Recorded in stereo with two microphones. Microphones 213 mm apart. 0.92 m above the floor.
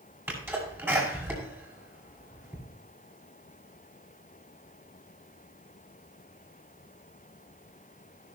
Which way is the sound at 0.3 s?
10° right (ahead or behind).